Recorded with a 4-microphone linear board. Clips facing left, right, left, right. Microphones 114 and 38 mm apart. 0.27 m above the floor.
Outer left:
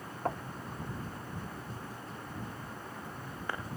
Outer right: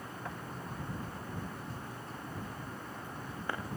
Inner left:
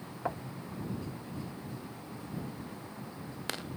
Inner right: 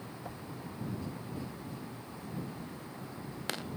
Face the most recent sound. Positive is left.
turn(degrees=50)  # may be behind; listen again after turning